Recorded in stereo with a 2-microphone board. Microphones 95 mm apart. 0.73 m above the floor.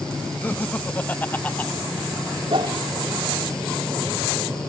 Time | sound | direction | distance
0.4 | laughter | 15° left (ahead or behind) | ?
2.5 | a whoosh | 65° right (ahead or behind) | ?